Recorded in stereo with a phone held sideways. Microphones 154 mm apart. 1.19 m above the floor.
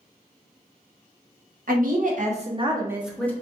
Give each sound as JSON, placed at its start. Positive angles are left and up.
{"t": 1.7, "sound": "a woman speaking", "side_deg": -70, "distance_m": 0.9}